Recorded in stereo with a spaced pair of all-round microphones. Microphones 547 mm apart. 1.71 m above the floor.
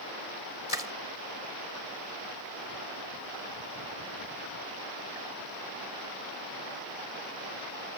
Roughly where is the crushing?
Left.